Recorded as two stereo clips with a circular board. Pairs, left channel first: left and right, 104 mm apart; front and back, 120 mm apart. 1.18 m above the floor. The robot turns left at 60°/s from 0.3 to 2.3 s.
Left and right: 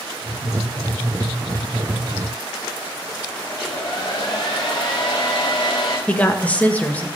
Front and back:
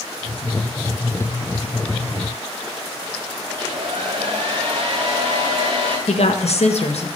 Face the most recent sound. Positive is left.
turn(degrees=15)